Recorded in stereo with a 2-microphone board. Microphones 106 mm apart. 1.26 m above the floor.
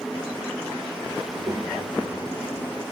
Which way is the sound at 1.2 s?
50° right (ahead or behind).